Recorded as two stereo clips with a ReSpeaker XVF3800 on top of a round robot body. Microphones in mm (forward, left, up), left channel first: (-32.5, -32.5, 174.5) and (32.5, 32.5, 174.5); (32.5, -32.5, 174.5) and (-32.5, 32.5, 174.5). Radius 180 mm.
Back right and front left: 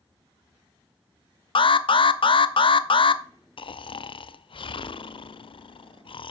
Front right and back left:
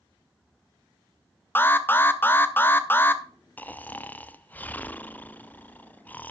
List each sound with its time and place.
1.6 s an alarm: 115° right, 0.8 m
3.6 s snoring: 115° right, 0.6 m